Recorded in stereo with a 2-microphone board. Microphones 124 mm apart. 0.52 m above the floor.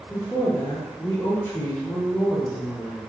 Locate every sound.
0.1 s a woman speaking: 20° left (ahead or behind), 0.8 m